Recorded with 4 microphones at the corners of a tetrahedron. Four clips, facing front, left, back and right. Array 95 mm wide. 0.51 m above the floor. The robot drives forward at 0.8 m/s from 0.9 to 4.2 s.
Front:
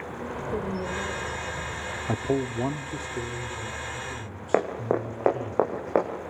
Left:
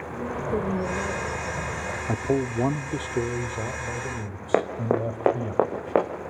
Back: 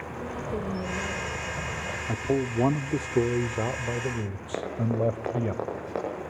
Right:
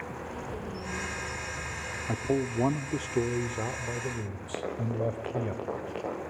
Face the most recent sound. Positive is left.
turn(degrees=60)